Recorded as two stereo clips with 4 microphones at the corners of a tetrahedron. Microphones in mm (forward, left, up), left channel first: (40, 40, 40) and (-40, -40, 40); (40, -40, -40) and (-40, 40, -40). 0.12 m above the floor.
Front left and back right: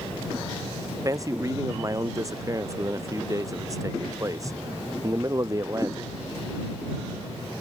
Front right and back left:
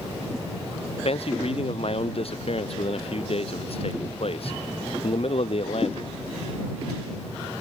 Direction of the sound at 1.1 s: 75° right.